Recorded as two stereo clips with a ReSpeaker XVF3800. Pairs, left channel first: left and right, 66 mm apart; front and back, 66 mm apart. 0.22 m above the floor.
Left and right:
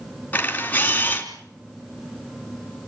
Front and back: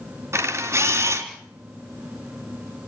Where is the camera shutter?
150° left, 2.5 m.